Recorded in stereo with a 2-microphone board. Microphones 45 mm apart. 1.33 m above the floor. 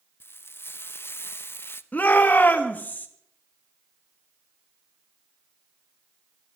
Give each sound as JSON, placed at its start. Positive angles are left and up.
{"t": 0.2, "sound": "frying", "side_deg": 55, "distance_m": 0.8}
{"t": 1.9, "sound": "a shout", "side_deg": 40, "distance_m": 1.8}